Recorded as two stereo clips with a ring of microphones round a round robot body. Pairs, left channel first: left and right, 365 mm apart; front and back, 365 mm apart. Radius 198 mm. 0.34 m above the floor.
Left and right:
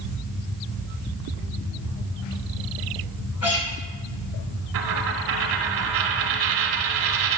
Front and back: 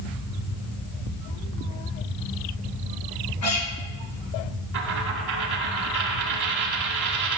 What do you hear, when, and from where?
3.4 s a guitar: 45° left, 4 m
4.7 s a dropped coin: 130° right, 0.9 m